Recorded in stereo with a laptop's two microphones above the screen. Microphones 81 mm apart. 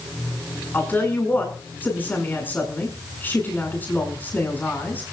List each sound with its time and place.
0.7 s a woman speaking: 25° left (ahead or behind), 8 m